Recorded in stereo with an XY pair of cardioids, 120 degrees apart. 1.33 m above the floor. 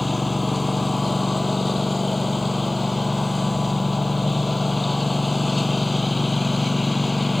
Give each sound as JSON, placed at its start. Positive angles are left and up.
{"t": 0.0, "sound": "a lawn mower", "azimuth_deg": 15}